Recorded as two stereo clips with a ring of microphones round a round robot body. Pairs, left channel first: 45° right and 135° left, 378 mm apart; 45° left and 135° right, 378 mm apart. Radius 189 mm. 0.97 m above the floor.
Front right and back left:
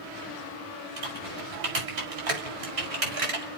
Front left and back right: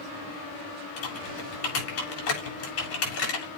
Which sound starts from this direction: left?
Typing on a keyboard, at 1.0 s.